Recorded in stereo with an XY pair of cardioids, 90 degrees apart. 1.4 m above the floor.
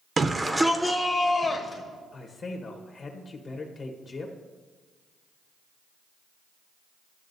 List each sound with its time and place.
0.2 s a shout: 40° right, 0.6 m; by 1.8 s 40° left, 1.1 m
2.1 s a man speaking: 55° left, 1.2 m